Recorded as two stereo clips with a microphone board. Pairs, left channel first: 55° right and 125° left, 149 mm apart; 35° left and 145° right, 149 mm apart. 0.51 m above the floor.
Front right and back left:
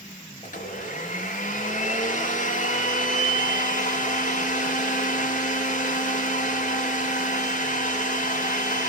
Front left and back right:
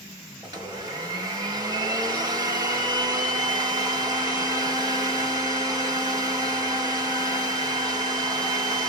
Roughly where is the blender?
Right.